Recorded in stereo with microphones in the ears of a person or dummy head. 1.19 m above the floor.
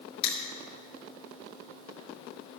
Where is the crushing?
35° left (ahead or behind), 3 m.